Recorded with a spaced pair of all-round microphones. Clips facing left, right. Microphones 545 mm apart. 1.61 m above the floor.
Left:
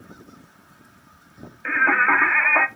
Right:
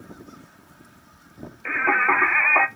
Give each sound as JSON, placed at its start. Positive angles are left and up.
{"t": 1.6, "sound": "singing", "side_deg": 40, "distance_m": 0.5}